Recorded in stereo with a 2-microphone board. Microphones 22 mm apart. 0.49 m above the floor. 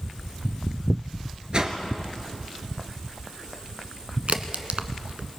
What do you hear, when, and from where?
1.5 s a whoosh: 40° right (ahead or behind), 1.8 m
4.3 s a crack: 70° right (ahead or behind), 1.1 m